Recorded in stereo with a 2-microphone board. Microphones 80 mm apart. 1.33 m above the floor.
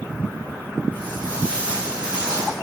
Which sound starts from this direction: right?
Footsteps, at 0.9 s.